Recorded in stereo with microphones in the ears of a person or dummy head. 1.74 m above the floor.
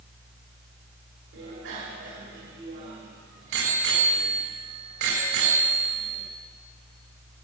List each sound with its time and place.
1.3 s a bicycle bell: 75° right (ahead or behind), 3.5 m